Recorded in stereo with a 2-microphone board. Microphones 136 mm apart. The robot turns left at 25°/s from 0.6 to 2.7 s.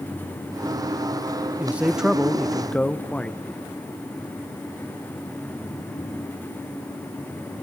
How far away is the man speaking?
About 0.6 m.